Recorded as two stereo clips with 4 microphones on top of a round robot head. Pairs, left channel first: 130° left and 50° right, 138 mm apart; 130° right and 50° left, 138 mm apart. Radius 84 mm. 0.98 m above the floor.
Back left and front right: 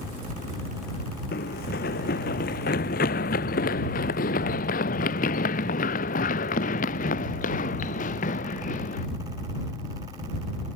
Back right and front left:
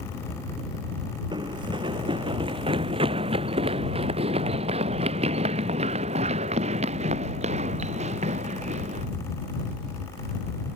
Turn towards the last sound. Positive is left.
turn(degrees=95)